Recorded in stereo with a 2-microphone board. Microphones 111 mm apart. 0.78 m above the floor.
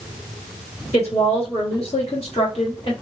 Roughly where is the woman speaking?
Left.